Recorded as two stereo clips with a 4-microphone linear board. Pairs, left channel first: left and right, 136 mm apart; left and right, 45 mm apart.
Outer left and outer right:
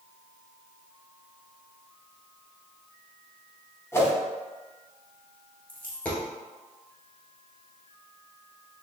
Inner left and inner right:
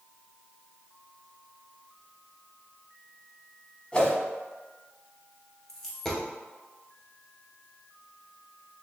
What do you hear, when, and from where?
3.9 s a whoosh: 20° left (ahead or behind), 0.9 m
5.7 s a dropped coin: 10° left (ahead or behind), 1.2 m